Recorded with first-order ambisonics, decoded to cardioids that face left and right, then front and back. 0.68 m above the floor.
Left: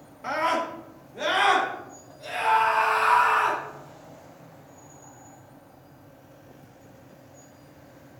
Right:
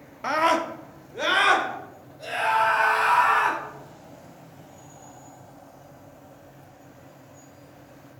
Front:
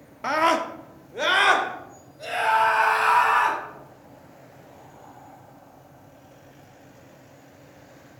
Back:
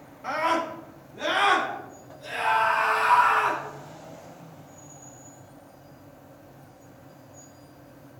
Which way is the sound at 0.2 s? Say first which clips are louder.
Right 3 dB, front 4 dB; 35° right.